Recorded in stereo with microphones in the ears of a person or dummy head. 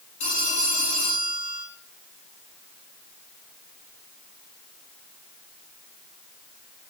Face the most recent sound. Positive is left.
turn(degrees=45)  # may be behind; listen again after turning